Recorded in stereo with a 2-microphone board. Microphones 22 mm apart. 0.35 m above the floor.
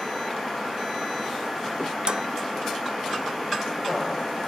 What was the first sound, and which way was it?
Dishes clattering, 45° right (ahead or behind).